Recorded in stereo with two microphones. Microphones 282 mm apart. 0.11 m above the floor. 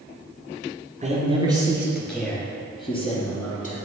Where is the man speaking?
25° right (ahead or behind), 1.8 m; by 3.8 s 30° left (ahead or behind), 2.5 m.